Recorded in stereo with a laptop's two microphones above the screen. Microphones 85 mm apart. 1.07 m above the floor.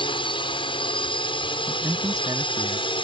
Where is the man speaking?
45° right (ahead or behind).